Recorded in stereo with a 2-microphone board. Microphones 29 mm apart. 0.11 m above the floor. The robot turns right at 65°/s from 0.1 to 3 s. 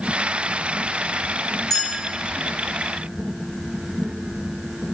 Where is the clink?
15° left (ahead or behind), 1.0 m; by 1.9 s 25° left (ahead or behind), 1.0 m.